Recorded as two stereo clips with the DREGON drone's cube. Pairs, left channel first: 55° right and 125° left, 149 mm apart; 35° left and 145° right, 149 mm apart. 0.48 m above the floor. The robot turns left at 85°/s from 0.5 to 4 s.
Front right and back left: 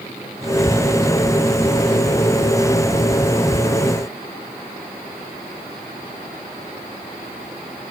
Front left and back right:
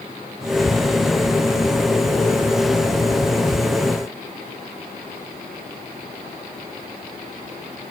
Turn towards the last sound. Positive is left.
No sound to turn to.